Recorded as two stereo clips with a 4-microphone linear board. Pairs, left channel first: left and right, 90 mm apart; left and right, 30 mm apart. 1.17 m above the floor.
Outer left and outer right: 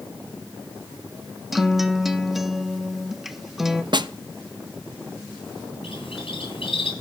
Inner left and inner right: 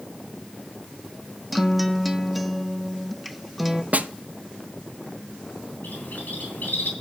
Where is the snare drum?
55° right (ahead or behind), 0.5 m.